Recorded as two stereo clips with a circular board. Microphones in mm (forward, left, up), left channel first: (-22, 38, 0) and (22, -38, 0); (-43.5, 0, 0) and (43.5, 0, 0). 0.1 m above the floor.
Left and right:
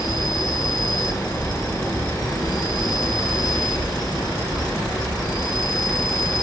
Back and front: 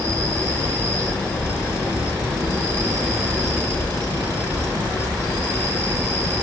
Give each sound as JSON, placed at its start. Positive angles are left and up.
{"t": 0.0, "sound": "an insect", "azimuth_deg": 140, "distance_m": 3.0}